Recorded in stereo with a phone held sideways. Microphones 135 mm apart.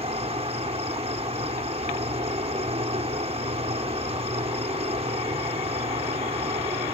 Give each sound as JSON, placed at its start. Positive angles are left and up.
{"t": 0.0, "sound": "an insect", "side_deg": -45}